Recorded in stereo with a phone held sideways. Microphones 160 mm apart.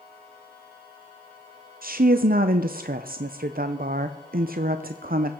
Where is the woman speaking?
65° right (ahead or behind), 0.5 m.